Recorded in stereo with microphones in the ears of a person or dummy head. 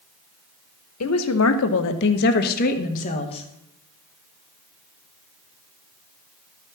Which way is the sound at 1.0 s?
75° left (ahead or behind).